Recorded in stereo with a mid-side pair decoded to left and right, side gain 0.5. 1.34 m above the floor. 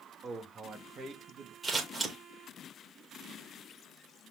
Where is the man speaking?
40° right, 2 m; by 1.5 s 60° right, 2.5 m.